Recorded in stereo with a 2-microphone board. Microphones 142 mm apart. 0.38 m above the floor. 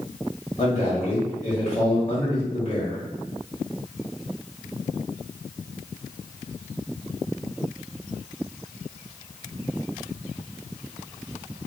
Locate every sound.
0.6 s a man speaking: 50° left (ahead or behind), 1.7 m